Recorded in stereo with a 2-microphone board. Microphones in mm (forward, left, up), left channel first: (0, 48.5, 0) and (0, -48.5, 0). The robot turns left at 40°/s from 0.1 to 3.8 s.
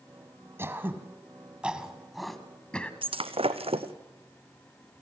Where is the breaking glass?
65° right (ahead or behind), 1.2 m; by 3.9 s 80° right, 1.2 m.